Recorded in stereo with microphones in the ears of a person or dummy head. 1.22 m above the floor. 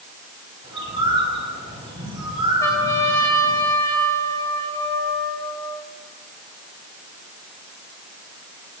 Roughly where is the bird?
Right.